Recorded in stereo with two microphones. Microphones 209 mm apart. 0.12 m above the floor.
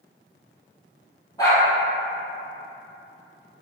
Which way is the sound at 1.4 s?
15° left (ahead or behind).